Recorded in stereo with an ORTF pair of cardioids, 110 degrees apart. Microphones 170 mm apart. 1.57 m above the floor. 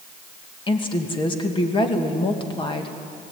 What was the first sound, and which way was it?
A woman speaking, 30° left.